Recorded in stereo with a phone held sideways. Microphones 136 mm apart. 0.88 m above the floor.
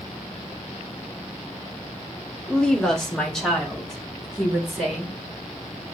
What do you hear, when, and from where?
2.5 s a woman speaking: 10° left (ahead or behind), 0.8 m; by 5.1 s centre (ahead or behind), 2.5 m